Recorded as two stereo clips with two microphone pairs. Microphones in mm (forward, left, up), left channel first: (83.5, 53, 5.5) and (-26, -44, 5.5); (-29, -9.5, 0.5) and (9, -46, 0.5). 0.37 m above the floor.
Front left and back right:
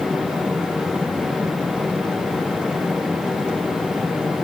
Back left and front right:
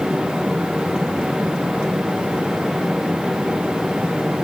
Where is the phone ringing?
I don't hear a phone ringing.